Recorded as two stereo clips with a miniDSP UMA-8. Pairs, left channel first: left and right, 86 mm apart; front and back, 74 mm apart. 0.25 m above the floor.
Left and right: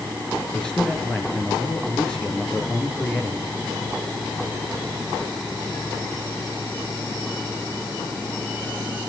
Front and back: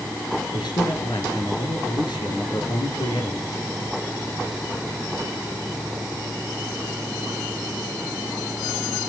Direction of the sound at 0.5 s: 10° left.